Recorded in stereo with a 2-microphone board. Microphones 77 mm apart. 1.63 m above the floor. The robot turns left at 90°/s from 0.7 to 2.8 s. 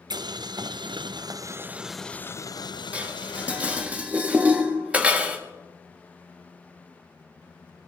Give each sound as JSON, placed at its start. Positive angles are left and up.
{"t": 0.1, "sound": "boiling", "azimuth_deg": -70, "distance_m": 0.5}
{"t": 2.9, "sound": "dishes clattering", "side_deg": -20, "distance_m": 1.5}